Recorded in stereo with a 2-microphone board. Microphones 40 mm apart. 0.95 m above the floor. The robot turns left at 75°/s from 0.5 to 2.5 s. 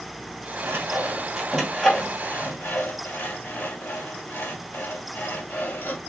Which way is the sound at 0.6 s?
70° right (ahead or behind).